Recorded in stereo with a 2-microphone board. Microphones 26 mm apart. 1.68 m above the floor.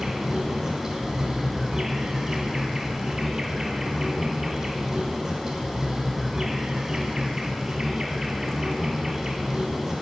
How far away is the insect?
About 1.6 m.